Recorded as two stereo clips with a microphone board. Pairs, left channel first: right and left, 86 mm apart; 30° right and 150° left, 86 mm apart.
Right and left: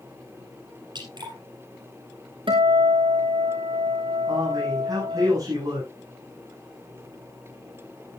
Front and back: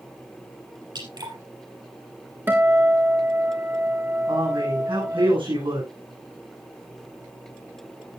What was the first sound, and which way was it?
Dripping, 120° left.